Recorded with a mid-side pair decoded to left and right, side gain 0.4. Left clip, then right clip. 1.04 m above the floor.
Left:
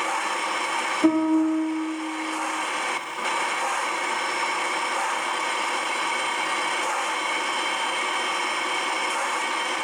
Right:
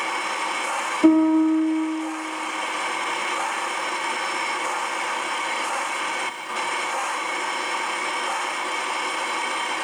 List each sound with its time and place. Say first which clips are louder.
1.0 s a piano: right 5 dB; 25° right, 1.2 m